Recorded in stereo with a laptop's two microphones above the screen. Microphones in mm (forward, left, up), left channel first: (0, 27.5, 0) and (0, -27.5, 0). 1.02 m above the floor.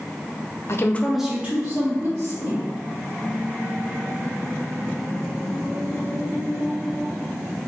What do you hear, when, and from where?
0.7 s a woman speaking: 50° left (ahead or behind), 0.5 m; by 2.7 s 45° right (ahead or behind), 2.0 m